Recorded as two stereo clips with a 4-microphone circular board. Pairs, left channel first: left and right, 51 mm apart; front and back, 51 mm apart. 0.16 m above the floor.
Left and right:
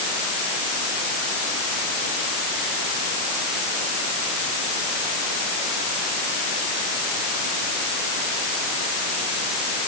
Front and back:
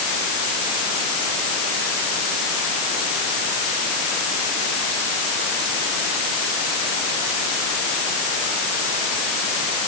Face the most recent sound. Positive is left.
No sound to turn to.